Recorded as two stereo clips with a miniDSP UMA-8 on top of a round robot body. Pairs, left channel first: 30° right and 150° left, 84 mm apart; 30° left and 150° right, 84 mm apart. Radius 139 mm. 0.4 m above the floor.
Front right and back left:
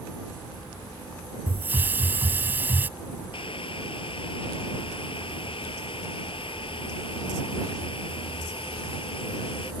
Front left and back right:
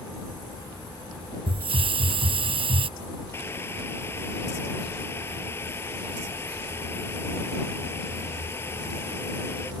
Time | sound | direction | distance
1.5 | a hiss | 140° right | ?
3.3 | boiling | 30° right | ?